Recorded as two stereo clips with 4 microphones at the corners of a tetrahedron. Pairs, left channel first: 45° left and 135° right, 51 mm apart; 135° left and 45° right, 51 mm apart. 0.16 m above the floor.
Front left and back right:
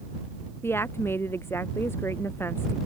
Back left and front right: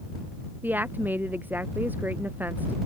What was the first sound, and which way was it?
A woman speaking, 5° left.